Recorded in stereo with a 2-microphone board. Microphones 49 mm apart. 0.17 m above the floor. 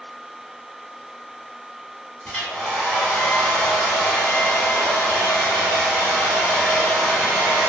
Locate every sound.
2.2 s a hair dryer: 20° left (ahead or behind), 1.1 m